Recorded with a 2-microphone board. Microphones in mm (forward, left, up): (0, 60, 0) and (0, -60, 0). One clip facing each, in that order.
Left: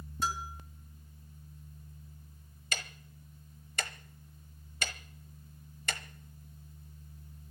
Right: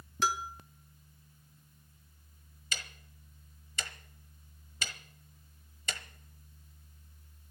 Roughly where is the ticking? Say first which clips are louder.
Left 4 dB; left.